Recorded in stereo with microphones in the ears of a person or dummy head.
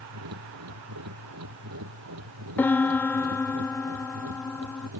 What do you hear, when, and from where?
0.0 s a machine running: 85° right
2.6 s a piano: 5° left (ahead or behind)